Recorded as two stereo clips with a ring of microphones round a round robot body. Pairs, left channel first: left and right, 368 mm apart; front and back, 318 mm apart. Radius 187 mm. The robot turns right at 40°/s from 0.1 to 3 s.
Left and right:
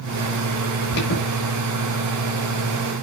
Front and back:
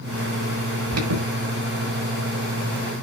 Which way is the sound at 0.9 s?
140° left.